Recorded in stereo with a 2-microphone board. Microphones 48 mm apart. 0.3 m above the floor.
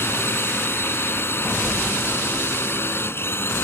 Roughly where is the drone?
Left.